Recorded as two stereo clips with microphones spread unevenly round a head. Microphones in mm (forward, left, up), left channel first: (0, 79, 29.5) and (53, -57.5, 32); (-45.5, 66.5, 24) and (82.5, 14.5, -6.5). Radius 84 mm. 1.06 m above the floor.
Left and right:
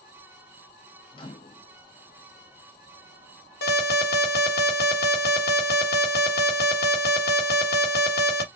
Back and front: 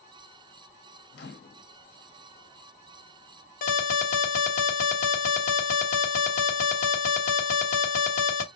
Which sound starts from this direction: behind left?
An alarm, at 3.6 s.